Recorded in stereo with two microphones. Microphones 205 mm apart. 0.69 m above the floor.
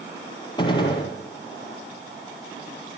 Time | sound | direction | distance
0.6 | a gunshot | 20° left (ahead or behind) | 6 m